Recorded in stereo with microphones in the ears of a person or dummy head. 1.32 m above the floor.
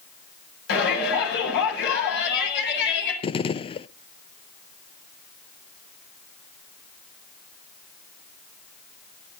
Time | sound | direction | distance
0.7 | a shout | 65° left (ahead or behind) | 8.5 m
3.2 | a gunshot | 30° left (ahead or behind) | 0.5 m